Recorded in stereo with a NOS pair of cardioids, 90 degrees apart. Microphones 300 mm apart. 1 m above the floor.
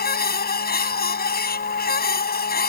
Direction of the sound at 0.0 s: 30° left.